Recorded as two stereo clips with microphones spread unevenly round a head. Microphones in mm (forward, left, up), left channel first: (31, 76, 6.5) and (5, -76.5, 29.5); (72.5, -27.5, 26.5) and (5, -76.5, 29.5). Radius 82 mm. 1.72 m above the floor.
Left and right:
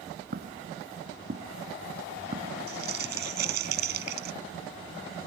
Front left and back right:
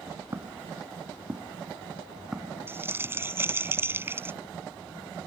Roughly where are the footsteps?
Right.